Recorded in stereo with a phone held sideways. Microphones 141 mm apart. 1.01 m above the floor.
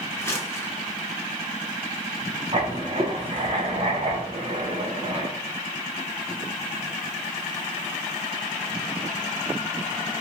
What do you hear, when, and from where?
0.2 s crumpling: 20° left (ahead or behind), 0.7 m
2.5 s writing: 45° right (ahead or behind), 0.6 m